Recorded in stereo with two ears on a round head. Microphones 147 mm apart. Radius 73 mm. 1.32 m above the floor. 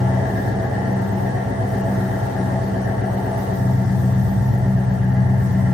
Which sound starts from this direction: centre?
An engine running, at 0.0 s.